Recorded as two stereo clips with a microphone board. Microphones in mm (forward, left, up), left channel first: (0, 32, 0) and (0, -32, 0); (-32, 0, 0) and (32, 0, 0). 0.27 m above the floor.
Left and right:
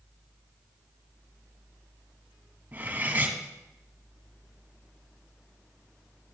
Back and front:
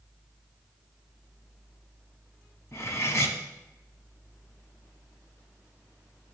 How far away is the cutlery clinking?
About 1.0 m.